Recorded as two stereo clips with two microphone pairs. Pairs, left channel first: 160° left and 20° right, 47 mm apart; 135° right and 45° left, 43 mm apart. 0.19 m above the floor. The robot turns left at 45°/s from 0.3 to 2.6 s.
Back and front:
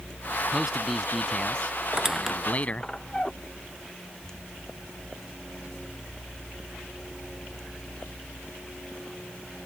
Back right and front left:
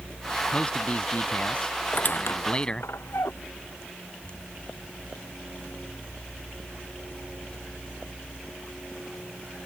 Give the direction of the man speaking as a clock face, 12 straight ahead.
3 o'clock.